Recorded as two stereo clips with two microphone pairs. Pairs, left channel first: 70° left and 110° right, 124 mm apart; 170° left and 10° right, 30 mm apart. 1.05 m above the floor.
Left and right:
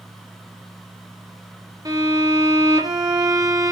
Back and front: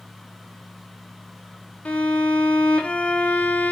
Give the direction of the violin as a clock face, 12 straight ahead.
5 o'clock.